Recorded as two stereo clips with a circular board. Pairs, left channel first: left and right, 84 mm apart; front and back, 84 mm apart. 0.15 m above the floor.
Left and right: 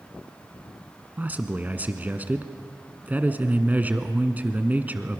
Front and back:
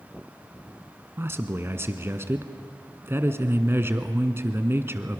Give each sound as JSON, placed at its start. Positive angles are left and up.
{"t": 1.2, "sound": "a man speaking", "azimuth_deg": -145, "distance_m": 1.4}